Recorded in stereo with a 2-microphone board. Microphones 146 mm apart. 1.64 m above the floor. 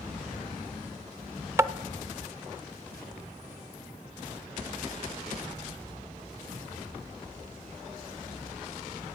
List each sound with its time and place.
1.6 s tapping: 20° right (ahead or behind), 0.6 m